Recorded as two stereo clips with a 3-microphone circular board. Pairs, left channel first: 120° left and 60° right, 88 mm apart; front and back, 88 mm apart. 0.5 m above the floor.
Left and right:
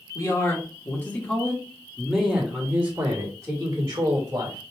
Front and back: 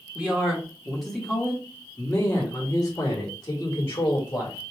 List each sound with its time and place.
0.1 s a man speaking: 110° left, 1.4 m; by 4.6 s 30° right, 1.8 m